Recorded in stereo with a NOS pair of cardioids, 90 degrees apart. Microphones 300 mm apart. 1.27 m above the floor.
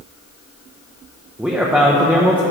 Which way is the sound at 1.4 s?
5° right.